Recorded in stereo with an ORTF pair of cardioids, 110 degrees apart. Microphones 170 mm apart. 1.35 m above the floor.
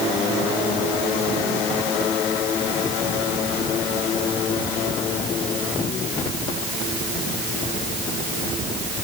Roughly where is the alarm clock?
I don't hear an alarm clock.